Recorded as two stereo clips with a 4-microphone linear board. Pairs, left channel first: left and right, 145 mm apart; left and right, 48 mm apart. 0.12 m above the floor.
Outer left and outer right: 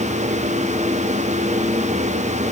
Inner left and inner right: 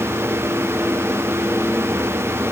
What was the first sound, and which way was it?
Only background noise.